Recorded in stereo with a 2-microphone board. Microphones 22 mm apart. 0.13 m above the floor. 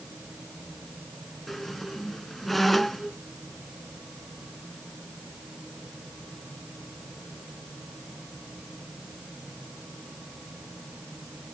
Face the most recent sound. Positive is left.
turn(degrees=10)  # may be behind; listen again after turning